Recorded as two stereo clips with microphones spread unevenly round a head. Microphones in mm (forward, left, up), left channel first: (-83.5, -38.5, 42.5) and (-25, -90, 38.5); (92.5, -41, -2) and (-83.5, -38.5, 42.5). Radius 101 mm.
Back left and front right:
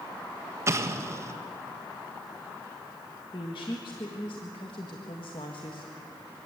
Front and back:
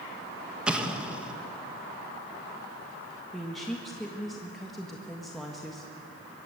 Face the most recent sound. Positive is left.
turn(degrees=90)